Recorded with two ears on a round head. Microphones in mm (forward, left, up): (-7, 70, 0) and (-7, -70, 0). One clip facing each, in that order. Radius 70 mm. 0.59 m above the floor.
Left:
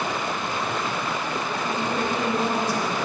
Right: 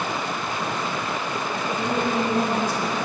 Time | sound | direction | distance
1.7 | a woman speaking | 80° right | 5.5 m